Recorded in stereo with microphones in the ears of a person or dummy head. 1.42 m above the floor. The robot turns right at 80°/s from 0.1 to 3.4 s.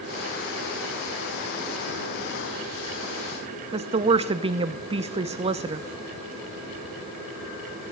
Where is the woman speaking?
30° right (ahead or behind), 0.7 m.